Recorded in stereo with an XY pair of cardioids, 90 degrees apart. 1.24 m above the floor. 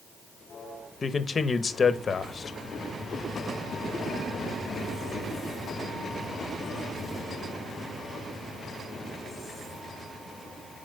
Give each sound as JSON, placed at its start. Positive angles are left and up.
{"t": 1.0, "sound": "a man speaking", "azimuth_deg": 40, "distance_m": 1.0}